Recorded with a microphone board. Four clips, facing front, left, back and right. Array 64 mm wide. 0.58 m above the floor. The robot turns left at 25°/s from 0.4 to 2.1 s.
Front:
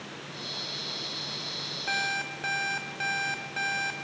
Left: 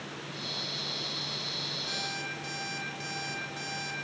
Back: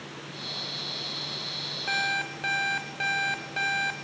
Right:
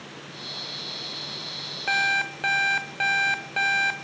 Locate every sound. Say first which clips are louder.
1.9 s an alarm clock: right 16 dB, back 2 dB; 90° right, 1.1 m; by 3.9 s 95° right, 1.1 m